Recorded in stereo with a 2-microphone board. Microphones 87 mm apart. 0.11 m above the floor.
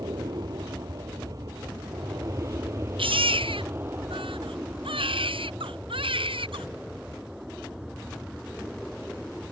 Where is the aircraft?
55° right (ahead or behind); by 9.5 s 5° right (ahead or behind).